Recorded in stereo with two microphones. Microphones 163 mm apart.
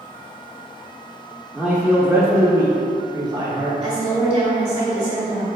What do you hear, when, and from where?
1.5 s a man speaking: 5° right (ahead or behind), 0.9 m; by 3.7 s 25° right (ahead or behind), 1.2 m
3.8 s a woman speaking: 40° right (ahead or behind), 2.0 m